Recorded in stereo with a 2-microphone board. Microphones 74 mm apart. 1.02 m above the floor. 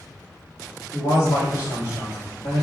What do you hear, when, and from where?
0.9 s a man speaking: 60° left (ahead or behind), 1.9 m